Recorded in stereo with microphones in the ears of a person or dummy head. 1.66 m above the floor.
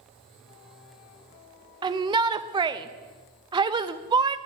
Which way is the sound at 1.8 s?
20° right (ahead or behind).